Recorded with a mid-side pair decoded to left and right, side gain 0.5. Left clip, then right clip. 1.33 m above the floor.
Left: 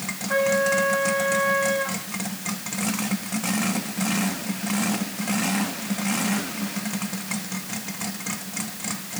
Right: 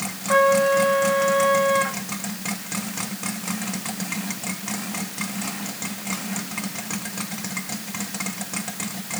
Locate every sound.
0.3 s a trumpet: 65° right, 7.5 m